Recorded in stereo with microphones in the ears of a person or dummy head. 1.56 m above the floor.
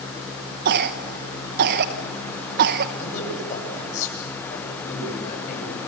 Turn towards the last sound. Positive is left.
turn(degrees=45)  # may be behind; listen again after turning